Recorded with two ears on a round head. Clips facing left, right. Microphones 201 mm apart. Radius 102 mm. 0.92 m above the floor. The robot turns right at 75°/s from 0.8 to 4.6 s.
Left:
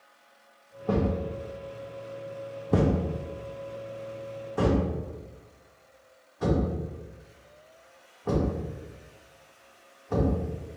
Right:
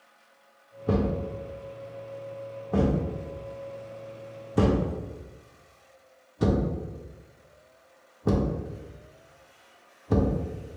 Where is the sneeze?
No sneeze in this recording.